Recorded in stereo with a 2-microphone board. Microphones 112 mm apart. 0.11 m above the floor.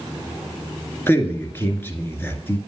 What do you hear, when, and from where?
1.1 s a man speaking: 20° left (ahead or behind), 1.6 m